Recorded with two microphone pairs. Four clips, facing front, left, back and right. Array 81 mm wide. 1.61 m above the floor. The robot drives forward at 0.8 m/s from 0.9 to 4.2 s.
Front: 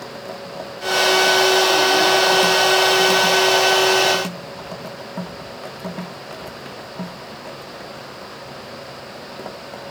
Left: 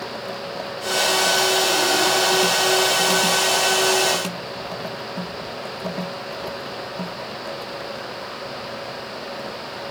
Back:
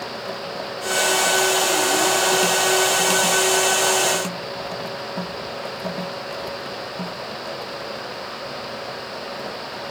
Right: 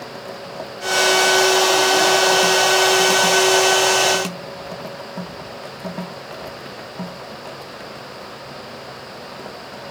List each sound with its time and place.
Only background noise.